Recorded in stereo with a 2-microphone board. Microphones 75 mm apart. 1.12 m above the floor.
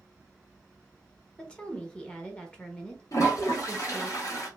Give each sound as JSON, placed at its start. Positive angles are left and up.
{"t": 1.4, "sound": "a woman speaking", "side_deg": 15, "distance_m": 1.0}
{"t": 3.1, "sound": "a toilet flushing", "side_deg": 55, "distance_m": 1.4}